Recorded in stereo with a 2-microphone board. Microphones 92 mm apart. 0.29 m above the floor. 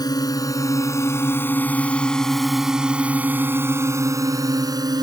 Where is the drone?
45° left (ahead or behind); by 5.0 s 45° right (ahead or behind).